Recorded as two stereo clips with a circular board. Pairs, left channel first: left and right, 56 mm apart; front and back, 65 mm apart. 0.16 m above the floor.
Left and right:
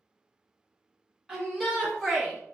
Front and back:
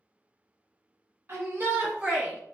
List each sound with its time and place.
1.3 s a shout: 170° right, 1.5 m; by 2.5 s 145° left, 1.2 m